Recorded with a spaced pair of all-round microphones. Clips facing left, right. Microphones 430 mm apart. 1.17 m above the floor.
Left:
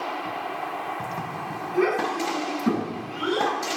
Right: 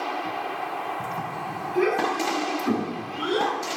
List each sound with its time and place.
1.7 s a child speaking: 65° left (ahead or behind), 6 m; by 3.5 s 70° left (ahead or behind), 8.5 m